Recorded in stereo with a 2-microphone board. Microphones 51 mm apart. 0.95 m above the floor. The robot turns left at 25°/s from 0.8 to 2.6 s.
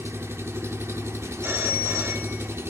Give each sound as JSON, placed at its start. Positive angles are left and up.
{"t": 0.0, "sound": "an engine running", "azimuth_deg": -70, "distance_m": 1.0}
{"t": 1.4, "sound": "a phone ringing", "side_deg": -60, "distance_m": 1.4}